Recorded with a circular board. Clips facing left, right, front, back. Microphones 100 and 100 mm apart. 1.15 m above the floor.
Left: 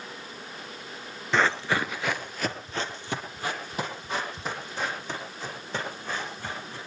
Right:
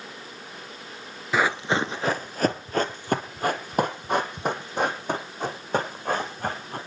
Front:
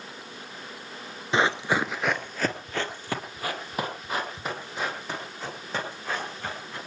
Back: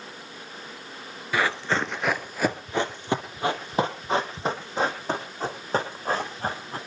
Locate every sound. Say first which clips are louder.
1.3 s running footsteps: right 1 dB, front 1 dB; 15° right, 1.2 m; by 6.8 s 125° right, 6 m